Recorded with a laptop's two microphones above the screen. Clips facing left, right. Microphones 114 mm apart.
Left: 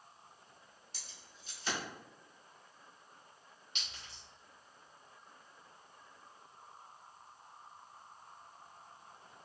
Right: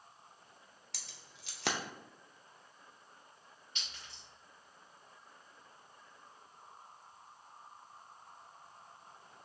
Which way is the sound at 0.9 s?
75° right (ahead or behind).